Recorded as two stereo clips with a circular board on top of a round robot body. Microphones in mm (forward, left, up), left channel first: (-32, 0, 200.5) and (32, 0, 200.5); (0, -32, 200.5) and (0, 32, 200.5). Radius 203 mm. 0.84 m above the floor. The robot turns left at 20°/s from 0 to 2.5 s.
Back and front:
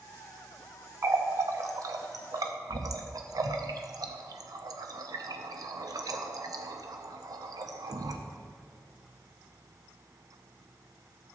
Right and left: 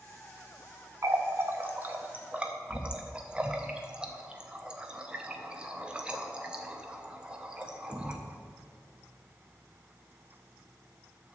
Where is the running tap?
45° left, 0.7 m; by 8.2 s 15° left, 0.7 m.